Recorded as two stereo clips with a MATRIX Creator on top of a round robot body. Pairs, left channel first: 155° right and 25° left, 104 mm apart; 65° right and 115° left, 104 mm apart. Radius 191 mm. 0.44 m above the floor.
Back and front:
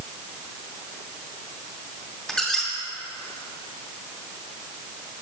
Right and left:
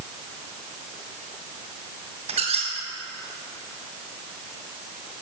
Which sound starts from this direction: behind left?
A squeak, at 2.3 s.